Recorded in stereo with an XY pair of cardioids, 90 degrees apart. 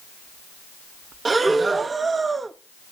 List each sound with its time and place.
1.2 s breathing: 35° right, 0.7 m